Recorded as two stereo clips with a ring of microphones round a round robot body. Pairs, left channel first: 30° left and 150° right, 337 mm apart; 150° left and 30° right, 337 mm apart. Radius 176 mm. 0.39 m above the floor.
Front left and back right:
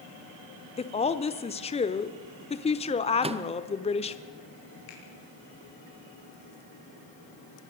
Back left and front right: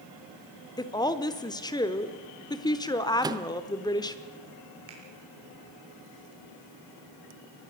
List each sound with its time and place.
0.8 s a woman speaking: 85° left, 1.0 m
3.2 s a microwave: 95° right, 0.8 m
4.9 s a finger snap: 20° left, 6.5 m